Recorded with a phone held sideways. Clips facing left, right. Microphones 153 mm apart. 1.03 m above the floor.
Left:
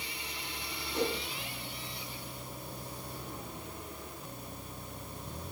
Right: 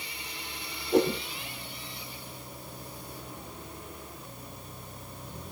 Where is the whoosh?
70° right (ahead or behind), 5.5 m.